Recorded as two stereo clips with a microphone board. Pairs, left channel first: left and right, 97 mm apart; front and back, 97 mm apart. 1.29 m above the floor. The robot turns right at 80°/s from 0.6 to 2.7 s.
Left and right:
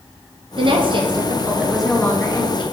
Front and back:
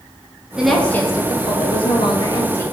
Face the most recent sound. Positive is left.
turn(degrees=70)